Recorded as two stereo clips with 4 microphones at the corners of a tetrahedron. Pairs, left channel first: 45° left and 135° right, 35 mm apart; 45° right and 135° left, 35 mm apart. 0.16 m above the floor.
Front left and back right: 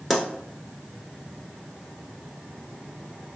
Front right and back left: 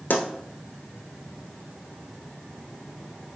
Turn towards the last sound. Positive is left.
turn(degrees=-50)